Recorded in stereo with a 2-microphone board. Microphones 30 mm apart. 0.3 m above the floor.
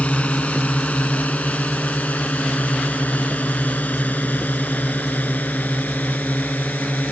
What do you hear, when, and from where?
0.0 s a drone: 45° left (ahead or behind); by 7.1 s 70° left (ahead or behind)